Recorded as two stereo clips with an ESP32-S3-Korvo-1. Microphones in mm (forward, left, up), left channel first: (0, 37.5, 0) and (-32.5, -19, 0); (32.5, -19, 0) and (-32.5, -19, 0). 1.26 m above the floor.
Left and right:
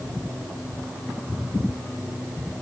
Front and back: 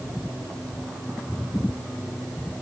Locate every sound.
Only background noise.